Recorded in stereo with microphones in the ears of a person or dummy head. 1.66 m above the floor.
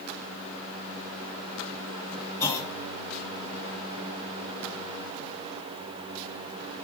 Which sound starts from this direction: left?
A clunk, at 2.4 s.